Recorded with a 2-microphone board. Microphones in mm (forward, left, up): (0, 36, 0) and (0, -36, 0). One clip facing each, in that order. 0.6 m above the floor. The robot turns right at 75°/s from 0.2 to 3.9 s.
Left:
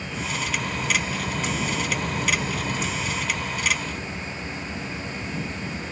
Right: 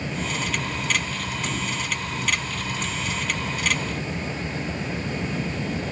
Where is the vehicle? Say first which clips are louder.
Right 1 dB; 40° right; by 5.9 s 125° right.